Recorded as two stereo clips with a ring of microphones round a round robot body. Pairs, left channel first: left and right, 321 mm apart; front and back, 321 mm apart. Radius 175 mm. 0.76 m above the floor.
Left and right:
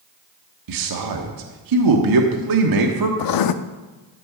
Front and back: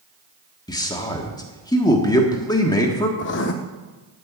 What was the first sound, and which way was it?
A man speaking, 80° right.